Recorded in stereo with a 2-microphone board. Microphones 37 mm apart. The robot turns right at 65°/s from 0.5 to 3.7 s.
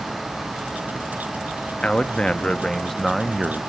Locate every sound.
1.8 s a man speaking: 30° left (ahead or behind), 0.5 m; by 3.6 s 10° right (ahead or behind), 0.5 m